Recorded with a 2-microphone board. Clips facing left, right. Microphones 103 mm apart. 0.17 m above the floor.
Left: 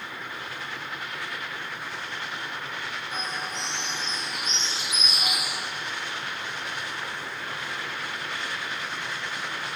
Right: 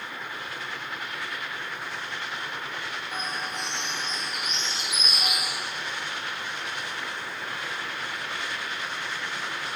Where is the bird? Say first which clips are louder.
Right 1 dB; 50° right (ahead or behind), 3.5 m.